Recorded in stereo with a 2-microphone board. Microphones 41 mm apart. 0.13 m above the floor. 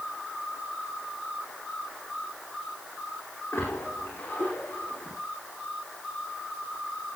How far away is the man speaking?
I don't hear a man speaking.